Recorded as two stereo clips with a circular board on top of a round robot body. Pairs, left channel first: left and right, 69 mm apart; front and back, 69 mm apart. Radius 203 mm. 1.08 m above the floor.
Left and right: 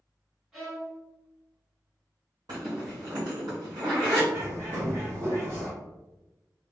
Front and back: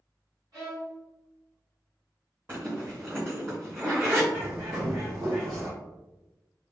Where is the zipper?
115° right, 0.7 m.